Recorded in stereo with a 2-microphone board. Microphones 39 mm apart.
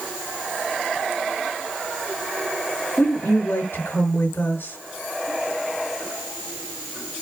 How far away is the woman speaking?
About 6 m.